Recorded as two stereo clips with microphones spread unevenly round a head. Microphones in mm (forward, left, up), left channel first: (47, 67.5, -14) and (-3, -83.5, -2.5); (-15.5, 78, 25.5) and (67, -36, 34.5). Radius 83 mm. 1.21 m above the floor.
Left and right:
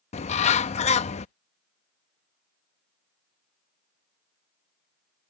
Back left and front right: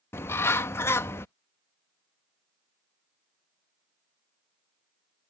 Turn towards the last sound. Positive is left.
turn(degrees=55)